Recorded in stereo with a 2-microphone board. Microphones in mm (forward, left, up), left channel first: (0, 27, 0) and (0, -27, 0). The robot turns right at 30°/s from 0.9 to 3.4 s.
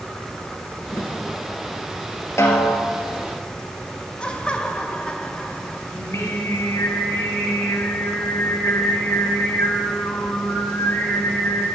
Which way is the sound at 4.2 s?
20° left (ahead or behind).